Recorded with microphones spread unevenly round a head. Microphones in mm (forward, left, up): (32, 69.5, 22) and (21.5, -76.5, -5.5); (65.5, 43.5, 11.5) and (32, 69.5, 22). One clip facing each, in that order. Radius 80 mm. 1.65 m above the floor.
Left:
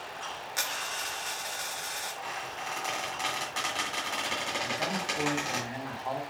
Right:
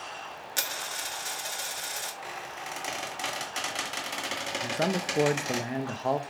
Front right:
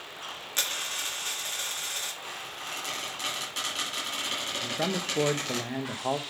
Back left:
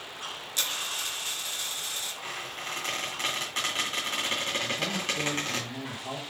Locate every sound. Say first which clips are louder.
0.6 s a dropped coin: even, even; 65° right, 1.1 m
2.2 s a squeak: left 1 dB, back left 2 dB; 170° right, 2.5 m
4.6 s a man speaking: right 7 dB, even; 65° right, 0.8 m